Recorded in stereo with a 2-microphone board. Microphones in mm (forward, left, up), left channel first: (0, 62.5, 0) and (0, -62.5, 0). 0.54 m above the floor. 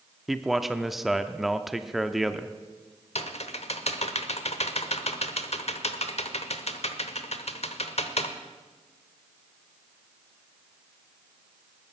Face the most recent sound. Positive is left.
turn(degrees=60)  # may be behind; listen again after turning